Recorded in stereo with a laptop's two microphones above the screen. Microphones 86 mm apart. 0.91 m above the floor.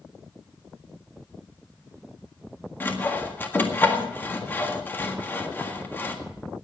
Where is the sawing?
25° left (ahead or behind), 1.7 m.